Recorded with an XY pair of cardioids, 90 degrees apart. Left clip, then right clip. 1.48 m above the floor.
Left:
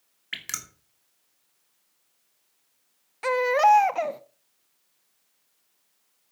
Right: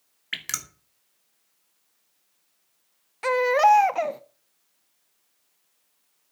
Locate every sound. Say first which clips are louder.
0.3 s dripping: right 3 dB; 20° right, 2.5 m
3.2 s a baby crying: right 1 dB; 10° right, 0.9 m